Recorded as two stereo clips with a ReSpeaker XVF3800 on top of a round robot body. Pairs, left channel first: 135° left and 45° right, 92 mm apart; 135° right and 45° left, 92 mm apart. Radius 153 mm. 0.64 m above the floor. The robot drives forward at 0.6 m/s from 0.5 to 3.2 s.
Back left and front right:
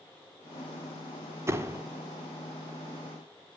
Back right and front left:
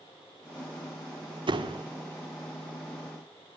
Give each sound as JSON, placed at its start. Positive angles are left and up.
{"t": 1.5, "sound": "a door slam", "azimuth_deg": 15, "distance_m": 1.7}